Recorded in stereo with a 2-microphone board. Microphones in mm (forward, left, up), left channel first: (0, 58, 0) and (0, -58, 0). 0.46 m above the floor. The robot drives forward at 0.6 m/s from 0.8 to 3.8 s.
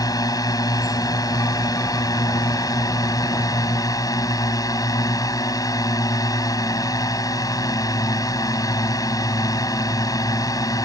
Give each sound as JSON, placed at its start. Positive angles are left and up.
{"t": 0.0, "sound": "a drone", "side_deg": 30}